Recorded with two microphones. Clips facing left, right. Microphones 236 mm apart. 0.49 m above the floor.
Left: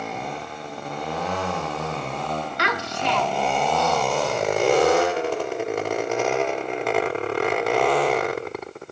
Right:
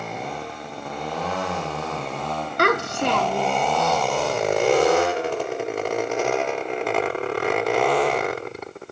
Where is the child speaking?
50° right (ahead or behind), 0.7 m.